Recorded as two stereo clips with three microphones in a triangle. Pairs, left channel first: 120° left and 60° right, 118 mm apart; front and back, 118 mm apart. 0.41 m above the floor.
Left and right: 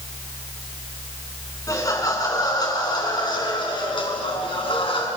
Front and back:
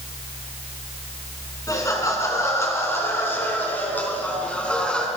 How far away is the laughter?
About 5 m.